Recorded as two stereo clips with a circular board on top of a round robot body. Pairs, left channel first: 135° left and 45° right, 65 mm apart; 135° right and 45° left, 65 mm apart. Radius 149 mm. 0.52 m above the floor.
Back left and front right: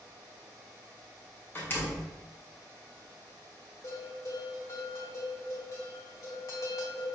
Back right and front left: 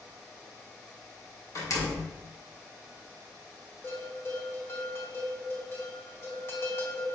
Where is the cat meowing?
No cat meowing in this recording.